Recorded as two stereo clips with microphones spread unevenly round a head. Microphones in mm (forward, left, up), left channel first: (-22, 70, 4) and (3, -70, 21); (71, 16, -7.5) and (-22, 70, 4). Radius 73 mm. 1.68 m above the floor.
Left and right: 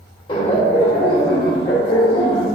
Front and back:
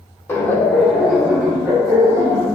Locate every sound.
0.3 s laughter: 40° left, 1.1 m; by 2.5 s 95° left, 1.7 m